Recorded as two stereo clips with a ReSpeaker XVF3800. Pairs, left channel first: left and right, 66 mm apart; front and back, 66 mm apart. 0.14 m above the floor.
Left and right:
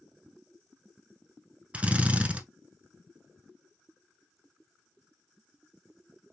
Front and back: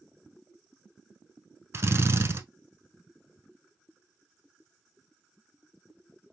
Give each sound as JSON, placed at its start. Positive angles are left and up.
{"t": 1.7, "sound": "a drill", "azimuth_deg": -150, "distance_m": 0.6}